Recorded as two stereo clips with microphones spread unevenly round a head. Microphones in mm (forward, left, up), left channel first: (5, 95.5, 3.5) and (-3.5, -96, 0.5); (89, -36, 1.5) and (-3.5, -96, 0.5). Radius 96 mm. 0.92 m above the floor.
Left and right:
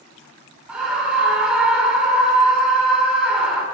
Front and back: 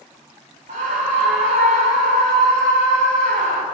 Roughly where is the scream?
Behind.